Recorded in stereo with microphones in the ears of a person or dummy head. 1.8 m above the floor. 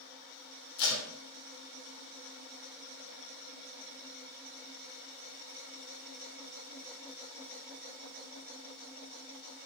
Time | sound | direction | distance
0.8 | tape being pulled | 60° left (ahead or behind) | 0.6 m